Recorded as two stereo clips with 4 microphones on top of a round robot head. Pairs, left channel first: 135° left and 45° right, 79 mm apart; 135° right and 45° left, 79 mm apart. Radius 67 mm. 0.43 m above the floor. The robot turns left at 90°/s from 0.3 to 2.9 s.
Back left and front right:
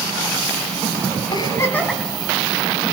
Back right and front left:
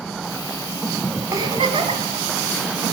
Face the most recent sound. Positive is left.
turn(degrees=-40)